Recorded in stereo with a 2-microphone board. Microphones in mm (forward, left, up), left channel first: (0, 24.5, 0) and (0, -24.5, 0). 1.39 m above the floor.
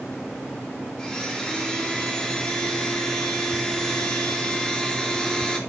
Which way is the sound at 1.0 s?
15° left (ahead or behind).